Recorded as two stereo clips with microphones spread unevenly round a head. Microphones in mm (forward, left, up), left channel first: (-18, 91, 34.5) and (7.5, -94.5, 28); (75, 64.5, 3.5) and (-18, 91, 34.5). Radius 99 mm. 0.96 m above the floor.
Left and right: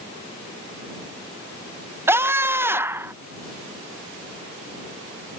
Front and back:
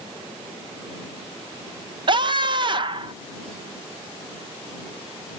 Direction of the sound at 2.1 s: 150° right.